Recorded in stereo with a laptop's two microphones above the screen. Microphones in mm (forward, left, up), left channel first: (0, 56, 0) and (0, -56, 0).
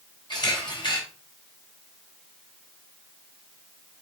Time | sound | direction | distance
0.3 | a camera shutter | 45° left (ahead or behind) | 3 m